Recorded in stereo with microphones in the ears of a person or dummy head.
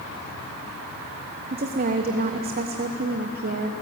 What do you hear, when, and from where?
1.5 s a woman speaking: 45° right (ahead or behind), 1.1 m